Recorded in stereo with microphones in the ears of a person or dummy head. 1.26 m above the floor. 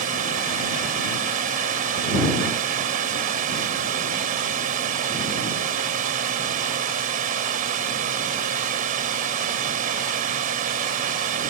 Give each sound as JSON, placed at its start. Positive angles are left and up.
{"t": 0.0, "sound": "a drone", "side_deg": -50}